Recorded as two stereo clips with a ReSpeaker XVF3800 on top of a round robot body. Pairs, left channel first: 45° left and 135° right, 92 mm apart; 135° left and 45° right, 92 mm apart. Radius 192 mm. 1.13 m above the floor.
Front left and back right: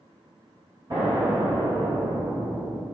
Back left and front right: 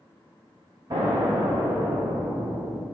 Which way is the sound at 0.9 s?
90° right.